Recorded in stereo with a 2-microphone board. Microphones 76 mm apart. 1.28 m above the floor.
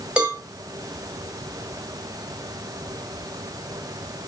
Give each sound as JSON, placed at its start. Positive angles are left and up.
{"t": 0.2, "sound": "a cowbell", "side_deg": -15, "distance_m": 3.0}